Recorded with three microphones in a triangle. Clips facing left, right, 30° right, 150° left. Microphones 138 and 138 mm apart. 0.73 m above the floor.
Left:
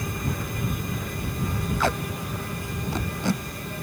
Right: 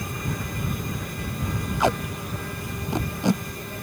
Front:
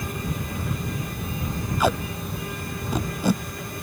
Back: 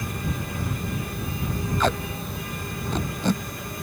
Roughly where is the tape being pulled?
Right.